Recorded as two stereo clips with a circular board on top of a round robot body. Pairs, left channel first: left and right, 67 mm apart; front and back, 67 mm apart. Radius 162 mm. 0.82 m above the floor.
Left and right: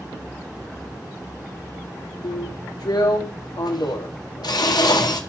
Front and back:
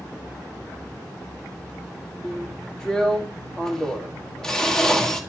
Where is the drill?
80° left, 1.9 m.